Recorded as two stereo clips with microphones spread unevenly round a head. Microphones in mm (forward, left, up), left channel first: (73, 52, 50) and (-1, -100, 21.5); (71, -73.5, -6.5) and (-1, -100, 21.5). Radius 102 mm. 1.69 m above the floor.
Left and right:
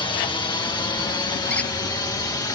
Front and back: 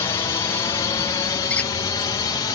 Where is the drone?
Straight ahead; by 2.6 s 10° right.